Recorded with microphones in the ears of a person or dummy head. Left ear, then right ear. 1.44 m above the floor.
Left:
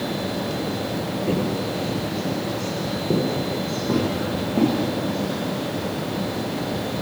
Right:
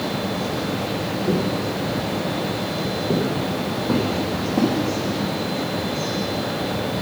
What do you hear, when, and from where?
1.3 s footsteps: 15° left (ahead or behind), 1.5 m; by 4.7 s centre (ahead or behind), 4.5 m